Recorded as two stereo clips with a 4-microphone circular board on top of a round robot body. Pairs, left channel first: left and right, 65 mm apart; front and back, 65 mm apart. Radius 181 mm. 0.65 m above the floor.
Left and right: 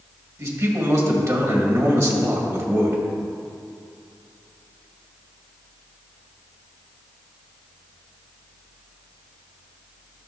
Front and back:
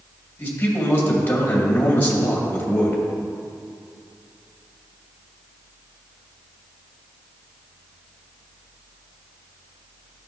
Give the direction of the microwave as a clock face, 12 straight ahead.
I don't hear a microwave.